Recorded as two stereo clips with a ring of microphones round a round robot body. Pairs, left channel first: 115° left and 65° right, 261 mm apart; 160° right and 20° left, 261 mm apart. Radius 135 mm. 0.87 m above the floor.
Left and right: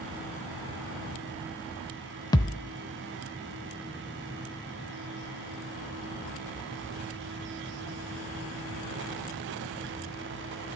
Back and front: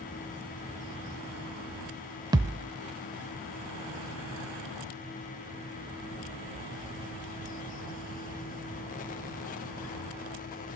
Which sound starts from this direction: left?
A thud, at 2.3 s.